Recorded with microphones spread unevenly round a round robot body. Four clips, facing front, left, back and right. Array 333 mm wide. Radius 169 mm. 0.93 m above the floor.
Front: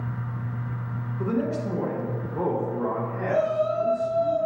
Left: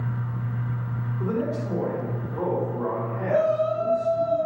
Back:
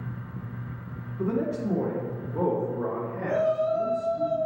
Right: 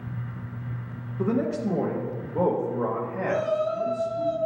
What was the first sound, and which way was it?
A man speaking, 100° right.